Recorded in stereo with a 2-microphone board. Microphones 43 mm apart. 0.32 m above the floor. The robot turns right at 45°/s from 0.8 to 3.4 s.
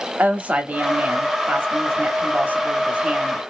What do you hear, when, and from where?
0.2 s a woman speaking: 140° right, 1.3 m; by 3.4 s 25° right, 1.3 m